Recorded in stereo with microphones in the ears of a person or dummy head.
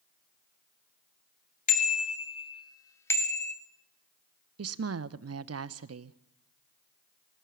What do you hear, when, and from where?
1.7 s a bicycle bell: 45° left (ahead or behind), 2 m; by 3.5 s 5° left (ahead or behind), 1.9 m
4.6 s a woman speaking: 80° right, 0.7 m